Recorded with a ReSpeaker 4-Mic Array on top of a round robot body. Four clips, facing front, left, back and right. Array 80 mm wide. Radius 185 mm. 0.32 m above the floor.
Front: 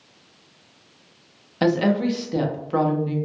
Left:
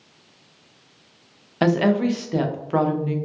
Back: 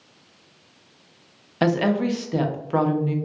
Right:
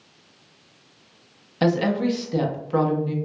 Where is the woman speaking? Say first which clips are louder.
Left 2 dB, front 1 dB; 120° left, 0.9 m.